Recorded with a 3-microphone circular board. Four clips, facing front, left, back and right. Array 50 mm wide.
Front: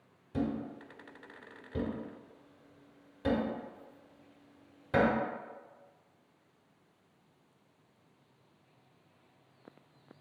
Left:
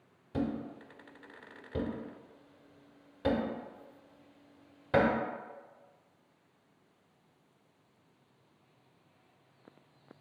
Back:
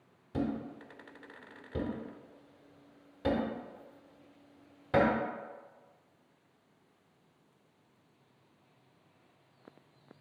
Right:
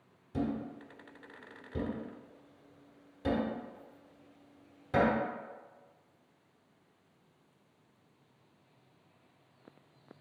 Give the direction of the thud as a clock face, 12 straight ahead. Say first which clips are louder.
Even, even; 8 o'clock.